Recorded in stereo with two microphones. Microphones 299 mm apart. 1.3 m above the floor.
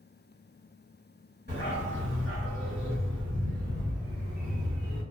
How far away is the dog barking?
About 1.4 m.